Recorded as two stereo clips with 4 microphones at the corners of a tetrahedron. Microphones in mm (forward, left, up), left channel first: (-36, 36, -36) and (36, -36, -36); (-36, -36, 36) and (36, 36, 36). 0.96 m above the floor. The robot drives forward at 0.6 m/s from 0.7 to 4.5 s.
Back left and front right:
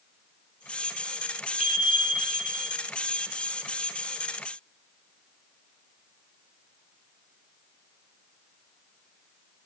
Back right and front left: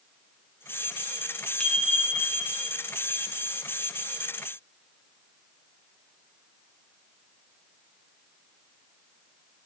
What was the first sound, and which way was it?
A bicycle bell, 145° left.